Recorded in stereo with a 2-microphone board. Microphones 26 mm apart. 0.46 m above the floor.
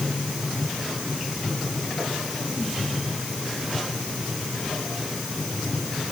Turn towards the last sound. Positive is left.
No sound to turn to.